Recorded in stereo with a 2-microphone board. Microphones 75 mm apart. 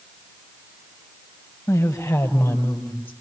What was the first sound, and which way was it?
A woman speaking, 40° left (ahead or behind).